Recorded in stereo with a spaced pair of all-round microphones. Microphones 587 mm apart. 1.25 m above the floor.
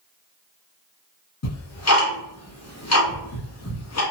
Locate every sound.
1.4 s ticking: 25° left (ahead or behind), 0.8 m